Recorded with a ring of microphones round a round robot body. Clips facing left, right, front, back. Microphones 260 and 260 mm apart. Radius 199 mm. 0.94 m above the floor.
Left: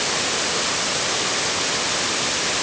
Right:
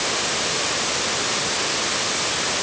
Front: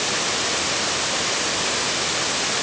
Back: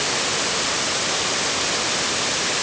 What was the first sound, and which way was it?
Only background noise.